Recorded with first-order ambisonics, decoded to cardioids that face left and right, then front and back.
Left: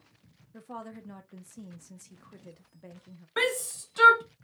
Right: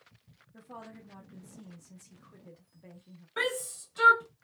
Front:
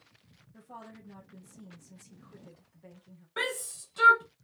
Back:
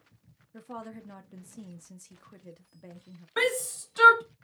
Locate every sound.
0.5 s a woman speaking: 145° left, 0.8 m
3.4 s a shout: 125° left, 0.7 m